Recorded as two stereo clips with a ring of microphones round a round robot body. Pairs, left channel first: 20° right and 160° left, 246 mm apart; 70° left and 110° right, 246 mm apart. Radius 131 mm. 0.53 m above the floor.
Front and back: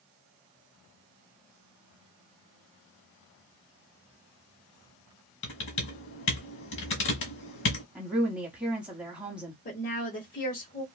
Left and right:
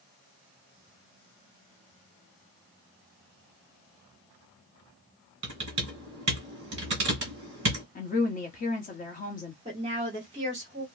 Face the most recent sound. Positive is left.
turn(degrees=-55)